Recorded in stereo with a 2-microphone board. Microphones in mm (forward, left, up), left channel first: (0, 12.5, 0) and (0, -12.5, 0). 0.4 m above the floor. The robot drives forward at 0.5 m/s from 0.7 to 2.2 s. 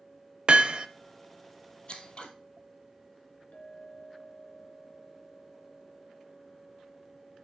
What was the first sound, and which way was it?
Hammering, 45° right (ahead or behind).